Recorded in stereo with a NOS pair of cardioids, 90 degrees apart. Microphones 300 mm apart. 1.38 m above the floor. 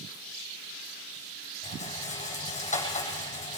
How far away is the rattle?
About 8.5 m.